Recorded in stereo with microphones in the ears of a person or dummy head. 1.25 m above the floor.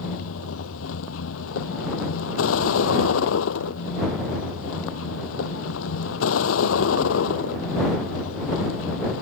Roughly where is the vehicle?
Left.